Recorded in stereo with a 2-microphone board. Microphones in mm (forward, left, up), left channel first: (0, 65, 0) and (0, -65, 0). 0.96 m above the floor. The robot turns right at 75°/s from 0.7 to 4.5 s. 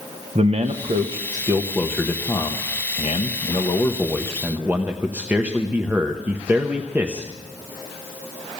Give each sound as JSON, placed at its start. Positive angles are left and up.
{"t": 0.3, "sound": "a man speaking", "azimuth_deg": -90, "distance_m": 0.9}